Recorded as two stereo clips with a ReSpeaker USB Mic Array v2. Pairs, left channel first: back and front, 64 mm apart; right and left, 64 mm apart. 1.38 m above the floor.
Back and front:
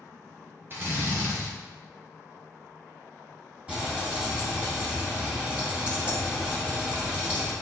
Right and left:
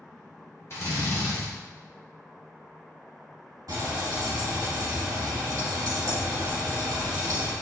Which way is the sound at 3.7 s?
75° left.